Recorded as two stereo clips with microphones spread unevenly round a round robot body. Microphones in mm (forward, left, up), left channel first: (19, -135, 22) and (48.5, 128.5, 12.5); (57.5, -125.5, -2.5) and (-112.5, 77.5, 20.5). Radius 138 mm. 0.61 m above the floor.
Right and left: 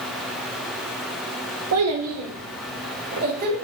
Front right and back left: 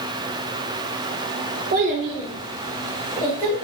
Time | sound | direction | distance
1.7 | a child speaking | 75° left | 0.9 m